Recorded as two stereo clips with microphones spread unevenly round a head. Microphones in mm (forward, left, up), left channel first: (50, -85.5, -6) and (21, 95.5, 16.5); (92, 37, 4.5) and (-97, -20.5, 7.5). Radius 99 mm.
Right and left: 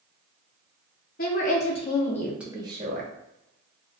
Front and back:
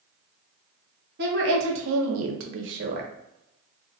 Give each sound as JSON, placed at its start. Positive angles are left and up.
{"t": 1.2, "sound": "a woman speaking", "azimuth_deg": -125, "distance_m": 1.0}